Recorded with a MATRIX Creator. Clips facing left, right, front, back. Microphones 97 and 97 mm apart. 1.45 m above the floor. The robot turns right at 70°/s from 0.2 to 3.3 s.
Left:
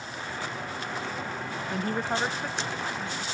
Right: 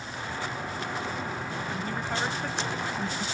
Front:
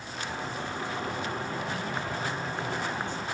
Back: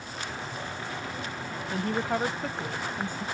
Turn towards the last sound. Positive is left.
turn(degrees=-125)